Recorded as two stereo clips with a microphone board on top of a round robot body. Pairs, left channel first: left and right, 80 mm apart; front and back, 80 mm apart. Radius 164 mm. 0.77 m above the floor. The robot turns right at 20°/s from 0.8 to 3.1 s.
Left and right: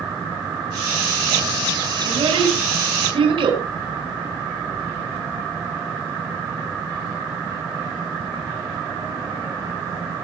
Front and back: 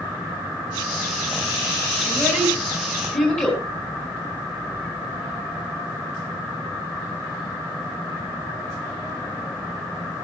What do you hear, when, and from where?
2.0 s a child speaking: 95° right, 4.5 m; by 3.6 s 75° right, 4.5 m